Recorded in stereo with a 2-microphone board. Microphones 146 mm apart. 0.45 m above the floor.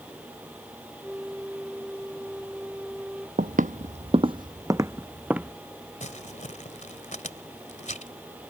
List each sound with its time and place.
1.0 s a flute: 5° right (ahead or behind)
3.4 s footsteps: 70° right (ahead or behind); by 5.5 s 10° right (ahead or behind)
6.0 s crumpling: 60° left (ahead or behind)